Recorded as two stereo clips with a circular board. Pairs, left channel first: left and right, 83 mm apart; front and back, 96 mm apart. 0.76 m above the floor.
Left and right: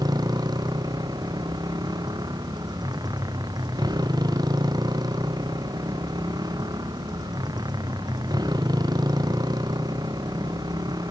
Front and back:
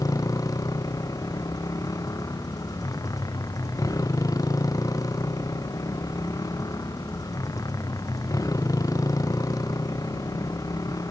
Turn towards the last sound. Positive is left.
turn(degrees=-55)